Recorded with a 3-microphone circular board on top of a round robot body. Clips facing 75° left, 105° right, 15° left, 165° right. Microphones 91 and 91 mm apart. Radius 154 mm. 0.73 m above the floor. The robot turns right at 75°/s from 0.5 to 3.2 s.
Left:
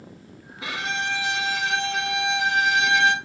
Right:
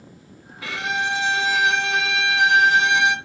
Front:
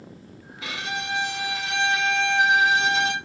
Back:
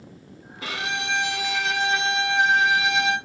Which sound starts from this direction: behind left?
A violin, at 0.6 s.